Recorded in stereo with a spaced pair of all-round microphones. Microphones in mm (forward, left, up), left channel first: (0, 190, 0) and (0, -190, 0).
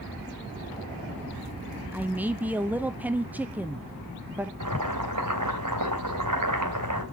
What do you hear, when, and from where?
1.9 s a man speaking: 5° right (ahead or behind), 0.5 m
4.6 s boiling: 50° right (ahead or behind), 2.5 m